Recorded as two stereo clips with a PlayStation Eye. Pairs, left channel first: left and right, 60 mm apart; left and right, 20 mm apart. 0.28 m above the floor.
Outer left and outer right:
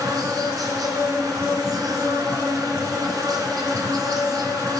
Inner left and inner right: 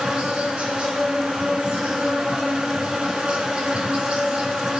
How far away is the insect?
About 1.8 m.